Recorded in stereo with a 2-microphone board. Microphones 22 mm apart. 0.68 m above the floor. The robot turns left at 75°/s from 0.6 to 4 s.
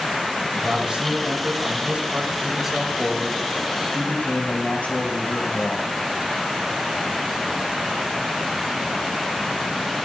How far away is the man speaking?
About 2.5 m.